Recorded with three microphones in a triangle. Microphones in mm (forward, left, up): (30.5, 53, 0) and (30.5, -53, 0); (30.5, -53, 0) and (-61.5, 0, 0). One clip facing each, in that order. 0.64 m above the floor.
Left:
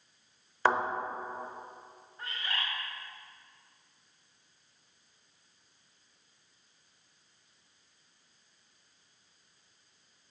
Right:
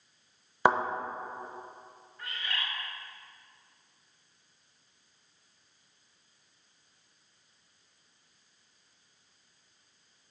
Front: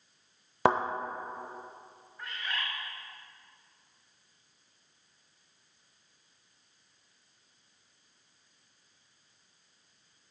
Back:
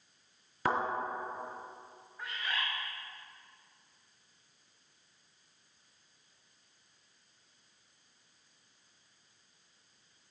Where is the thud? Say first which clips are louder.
Right 2 dB, front 6 dB; 15° right, 0.7 m.